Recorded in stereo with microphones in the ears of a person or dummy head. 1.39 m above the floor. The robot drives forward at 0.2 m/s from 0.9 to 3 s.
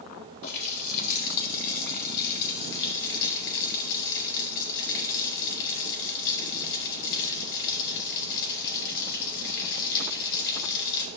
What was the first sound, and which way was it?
A running tap, 60° left (ahead or behind).